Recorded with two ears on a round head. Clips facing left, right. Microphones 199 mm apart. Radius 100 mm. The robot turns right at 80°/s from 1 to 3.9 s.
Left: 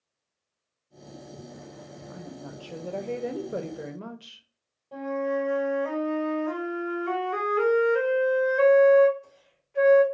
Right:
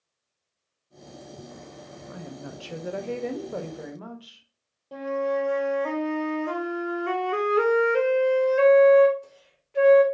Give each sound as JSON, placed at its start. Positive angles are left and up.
{"t": 2.1, "sound": "a woman speaking", "azimuth_deg": -90, "distance_m": 0.6}
{"t": 4.9, "sound": "a flute", "side_deg": -50, "distance_m": 1.3}